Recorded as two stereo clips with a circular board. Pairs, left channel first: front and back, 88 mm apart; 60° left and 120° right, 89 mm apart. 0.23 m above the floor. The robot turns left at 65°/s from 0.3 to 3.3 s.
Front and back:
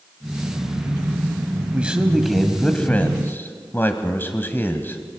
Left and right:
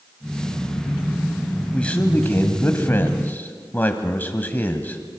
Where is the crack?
I don't hear a crack.